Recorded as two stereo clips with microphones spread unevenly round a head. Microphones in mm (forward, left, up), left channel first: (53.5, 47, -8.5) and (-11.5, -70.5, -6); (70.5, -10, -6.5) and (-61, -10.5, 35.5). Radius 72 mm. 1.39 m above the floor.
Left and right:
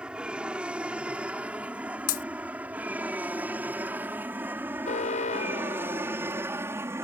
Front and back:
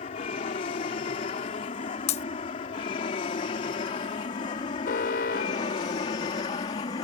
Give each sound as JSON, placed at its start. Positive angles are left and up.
{"t": 0.0, "sound": "an aircraft", "azimuth_deg": -35}
{"t": 2.1, "sound": "breaking glass", "azimuth_deg": 50}
{"t": 4.8, "sound": "an alarm", "azimuth_deg": 25}